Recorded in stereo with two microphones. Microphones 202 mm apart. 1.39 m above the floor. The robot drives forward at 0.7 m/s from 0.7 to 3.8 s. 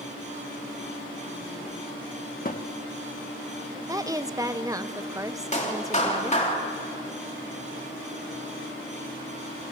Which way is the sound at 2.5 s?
40° left (ahead or behind).